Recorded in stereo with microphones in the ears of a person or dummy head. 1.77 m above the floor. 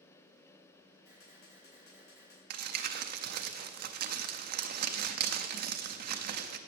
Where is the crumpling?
45° right (ahead or behind), 0.5 m.